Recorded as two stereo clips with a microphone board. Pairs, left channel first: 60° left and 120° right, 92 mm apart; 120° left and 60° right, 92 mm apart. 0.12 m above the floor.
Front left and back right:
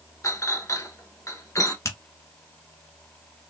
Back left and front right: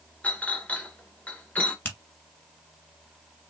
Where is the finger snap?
70° left, 1.5 m.